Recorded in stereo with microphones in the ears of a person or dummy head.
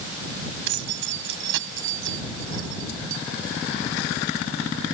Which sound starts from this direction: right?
Keys jangling, at 0.7 s.